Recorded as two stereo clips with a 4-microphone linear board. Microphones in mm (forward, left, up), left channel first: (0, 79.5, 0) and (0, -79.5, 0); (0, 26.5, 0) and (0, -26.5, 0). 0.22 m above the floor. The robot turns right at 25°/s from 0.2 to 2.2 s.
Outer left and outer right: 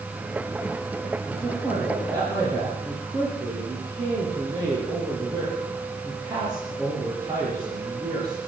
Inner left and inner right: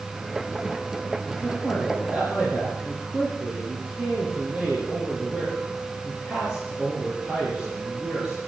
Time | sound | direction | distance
1.3 | a man speaking | centre (ahead or behind) | 8 m